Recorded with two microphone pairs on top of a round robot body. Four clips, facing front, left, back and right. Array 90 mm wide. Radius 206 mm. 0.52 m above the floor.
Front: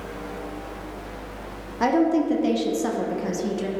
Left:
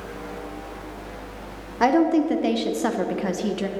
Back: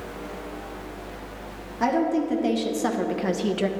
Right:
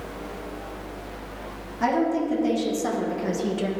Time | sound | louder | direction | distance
1.8 | a woman speaking | left 4 dB, front 3 dB | 80° left | 2 m